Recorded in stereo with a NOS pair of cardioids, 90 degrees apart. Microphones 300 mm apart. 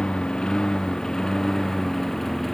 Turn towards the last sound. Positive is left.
turn(degrees=0)